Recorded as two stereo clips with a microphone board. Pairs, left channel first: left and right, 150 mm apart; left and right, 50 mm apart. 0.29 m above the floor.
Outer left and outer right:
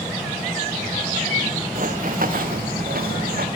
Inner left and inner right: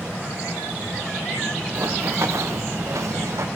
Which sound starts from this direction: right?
Running footsteps, at 1.8 s.